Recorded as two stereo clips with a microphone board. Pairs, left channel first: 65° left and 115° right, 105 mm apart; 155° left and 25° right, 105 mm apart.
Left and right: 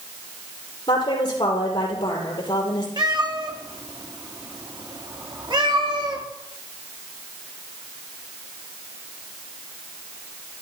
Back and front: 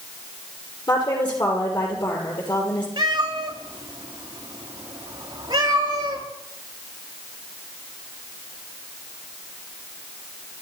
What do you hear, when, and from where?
0.9 s a woman speaking: 115° left, 8 m
3.0 s a cat meowing: 70° right, 3.5 m